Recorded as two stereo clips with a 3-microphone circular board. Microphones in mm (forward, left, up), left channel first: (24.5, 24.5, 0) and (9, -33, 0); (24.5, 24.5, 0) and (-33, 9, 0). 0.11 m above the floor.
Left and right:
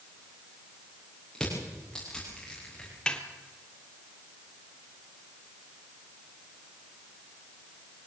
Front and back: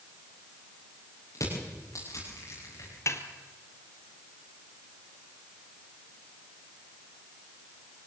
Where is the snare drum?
Straight ahead, 1.5 m.